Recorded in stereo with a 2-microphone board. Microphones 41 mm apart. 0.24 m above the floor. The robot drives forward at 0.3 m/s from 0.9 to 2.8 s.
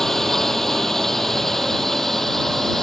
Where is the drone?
10° left (ahead or behind); by 2.8 s 5° left (ahead or behind).